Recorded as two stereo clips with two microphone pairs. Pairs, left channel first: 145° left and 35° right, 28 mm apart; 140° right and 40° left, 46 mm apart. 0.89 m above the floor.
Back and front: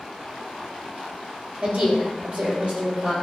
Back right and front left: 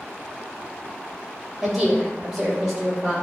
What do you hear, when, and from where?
1.6 s a woman speaking: 45° right, 3.5 m